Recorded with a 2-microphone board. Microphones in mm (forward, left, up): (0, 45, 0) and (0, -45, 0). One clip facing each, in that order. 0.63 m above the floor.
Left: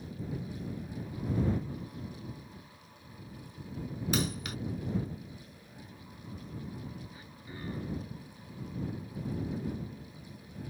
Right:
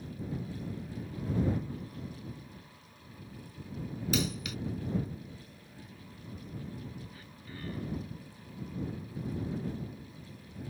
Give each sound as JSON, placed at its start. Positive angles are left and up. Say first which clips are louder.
{"t": 4.1, "sound": "a dropped coin", "louder": "even", "side_deg": 45}
{"t": 7.1, "sound": "throat clearing", "louder": "left 1 dB", "side_deg": 20}